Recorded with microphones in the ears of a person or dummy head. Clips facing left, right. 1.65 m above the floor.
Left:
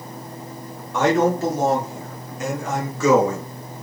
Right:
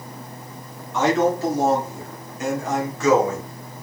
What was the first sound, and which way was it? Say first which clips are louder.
A man speaking: left 1 dB; 50° left (ahead or behind).